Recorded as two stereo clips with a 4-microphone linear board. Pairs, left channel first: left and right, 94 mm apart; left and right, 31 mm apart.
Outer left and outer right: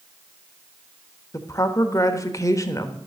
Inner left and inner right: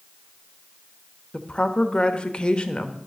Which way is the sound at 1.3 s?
35° left (ahead or behind).